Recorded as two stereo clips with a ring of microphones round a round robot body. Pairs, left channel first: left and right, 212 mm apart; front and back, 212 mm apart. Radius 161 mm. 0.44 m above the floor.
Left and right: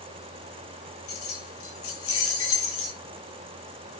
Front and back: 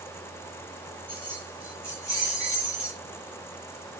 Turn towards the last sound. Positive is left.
turn(degrees=80)